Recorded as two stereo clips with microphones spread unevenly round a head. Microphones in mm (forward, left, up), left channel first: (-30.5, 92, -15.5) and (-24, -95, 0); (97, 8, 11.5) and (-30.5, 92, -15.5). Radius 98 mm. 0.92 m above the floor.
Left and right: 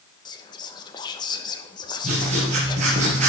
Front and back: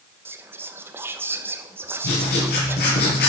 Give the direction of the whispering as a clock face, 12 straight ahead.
8 o'clock.